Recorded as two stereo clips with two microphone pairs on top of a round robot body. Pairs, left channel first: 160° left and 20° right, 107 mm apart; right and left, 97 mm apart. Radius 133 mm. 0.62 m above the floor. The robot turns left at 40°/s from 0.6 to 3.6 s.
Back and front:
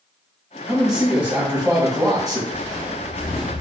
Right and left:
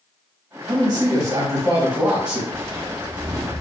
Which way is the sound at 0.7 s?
85° left.